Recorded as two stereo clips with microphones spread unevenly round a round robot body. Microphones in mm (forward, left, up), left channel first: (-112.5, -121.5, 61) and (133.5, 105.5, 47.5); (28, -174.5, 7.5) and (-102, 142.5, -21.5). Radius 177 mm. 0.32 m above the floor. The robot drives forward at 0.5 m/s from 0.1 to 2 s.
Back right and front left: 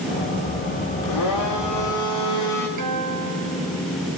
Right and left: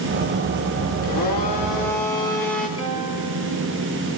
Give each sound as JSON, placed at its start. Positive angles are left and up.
{"t": 1.0, "sound": "a blender", "azimuth_deg": -95, "distance_m": 9.5}
{"t": 2.8, "sound": "a guitar", "azimuth_deg": 10, "distance_m": 6.5}